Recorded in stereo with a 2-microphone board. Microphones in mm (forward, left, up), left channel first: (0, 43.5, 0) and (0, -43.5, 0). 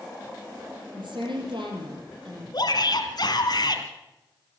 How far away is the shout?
About 2.5 m.